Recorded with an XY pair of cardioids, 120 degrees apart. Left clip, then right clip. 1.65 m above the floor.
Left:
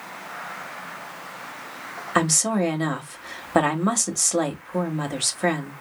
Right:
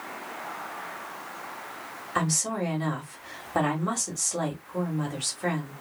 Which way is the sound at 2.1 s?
50° left.